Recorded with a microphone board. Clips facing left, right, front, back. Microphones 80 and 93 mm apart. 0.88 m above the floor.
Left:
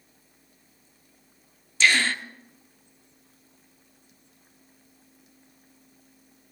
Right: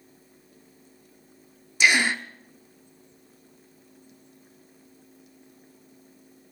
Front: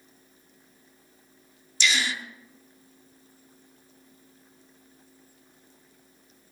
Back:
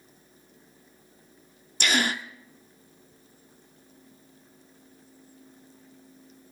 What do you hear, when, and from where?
1.8 s a gasp: 160° right, 0.5 m